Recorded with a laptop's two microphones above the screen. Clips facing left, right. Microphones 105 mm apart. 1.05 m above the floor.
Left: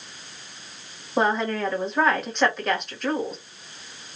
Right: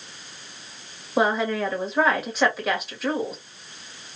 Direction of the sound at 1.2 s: 5° right (ahead or behind).